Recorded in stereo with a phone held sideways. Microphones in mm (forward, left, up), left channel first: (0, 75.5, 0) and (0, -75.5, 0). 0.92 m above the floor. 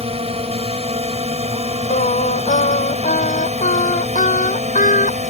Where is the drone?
45° right (ahead or behind); by 5.3 s 55° right (ahead or behind).